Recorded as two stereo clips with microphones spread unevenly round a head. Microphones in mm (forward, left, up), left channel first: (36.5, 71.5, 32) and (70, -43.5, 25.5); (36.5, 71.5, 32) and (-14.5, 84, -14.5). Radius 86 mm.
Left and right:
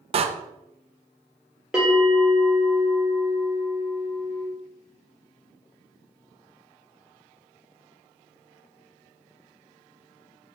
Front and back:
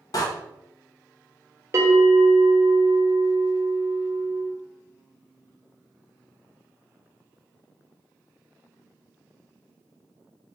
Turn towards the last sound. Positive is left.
turn(degrees=-160)